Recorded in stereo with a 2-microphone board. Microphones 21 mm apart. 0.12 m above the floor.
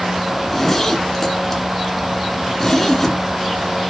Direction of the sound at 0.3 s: 10° left (ahead or behind).